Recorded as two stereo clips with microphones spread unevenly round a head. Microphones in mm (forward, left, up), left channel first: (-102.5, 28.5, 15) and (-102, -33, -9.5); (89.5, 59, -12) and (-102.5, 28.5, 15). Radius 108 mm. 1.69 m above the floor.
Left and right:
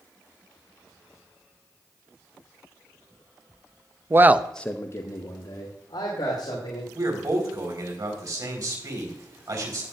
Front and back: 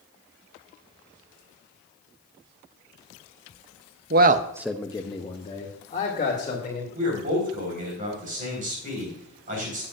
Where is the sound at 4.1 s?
150° right, 0.9 m; by 6.8 s 65° left, 4 m.